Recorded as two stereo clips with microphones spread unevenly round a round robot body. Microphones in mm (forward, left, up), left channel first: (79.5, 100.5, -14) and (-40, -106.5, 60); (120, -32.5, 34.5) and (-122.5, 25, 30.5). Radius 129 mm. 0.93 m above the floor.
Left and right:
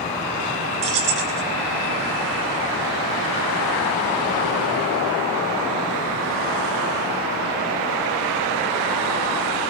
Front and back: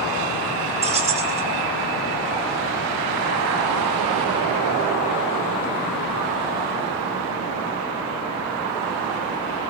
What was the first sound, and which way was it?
Keys jangling, 125° right.